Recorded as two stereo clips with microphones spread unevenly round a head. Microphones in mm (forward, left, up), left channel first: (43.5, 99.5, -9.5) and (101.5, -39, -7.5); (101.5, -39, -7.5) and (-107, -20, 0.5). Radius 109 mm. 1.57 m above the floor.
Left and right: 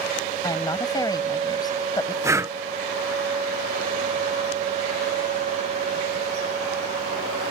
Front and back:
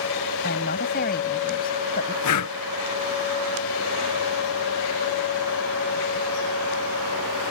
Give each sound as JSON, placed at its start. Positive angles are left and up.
{"t": 0.4, "sound": "a woman speaking", "azimuth_deg": 50}
{"t": 2.2, "sound": "breathing", "azimuth_deg": 5}